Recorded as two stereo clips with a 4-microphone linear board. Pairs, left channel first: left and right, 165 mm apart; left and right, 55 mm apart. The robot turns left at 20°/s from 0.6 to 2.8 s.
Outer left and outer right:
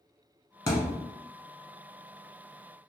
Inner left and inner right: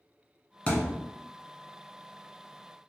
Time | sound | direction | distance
0.7 | a thud | 20° left (ahead or behind) | 0.8 m